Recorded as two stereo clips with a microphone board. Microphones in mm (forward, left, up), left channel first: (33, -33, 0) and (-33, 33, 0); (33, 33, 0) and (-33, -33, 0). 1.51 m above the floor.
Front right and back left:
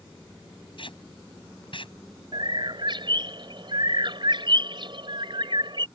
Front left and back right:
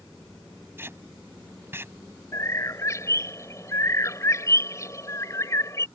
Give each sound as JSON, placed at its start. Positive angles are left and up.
{"t": 0.8, "sound": "tape being pulled", "azimuth_deg": -70}
{"t": 2.3, "sound": "a bird", "azimuth_deg": 100}